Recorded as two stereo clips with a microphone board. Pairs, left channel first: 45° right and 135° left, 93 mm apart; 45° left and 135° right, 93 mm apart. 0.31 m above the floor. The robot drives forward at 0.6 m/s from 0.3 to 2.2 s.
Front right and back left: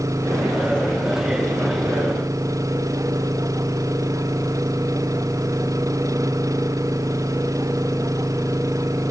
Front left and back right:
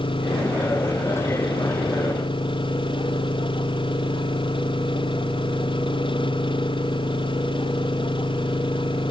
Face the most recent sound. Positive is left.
turn(degrees=80)